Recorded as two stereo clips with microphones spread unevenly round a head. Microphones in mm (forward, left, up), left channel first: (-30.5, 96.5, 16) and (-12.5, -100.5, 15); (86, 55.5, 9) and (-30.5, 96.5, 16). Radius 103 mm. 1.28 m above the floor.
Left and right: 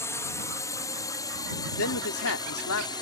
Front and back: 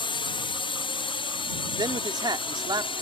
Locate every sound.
0.0 s a drone: 20° left; by 3.0 s 25° left
1.8 s a man speaking: 105° left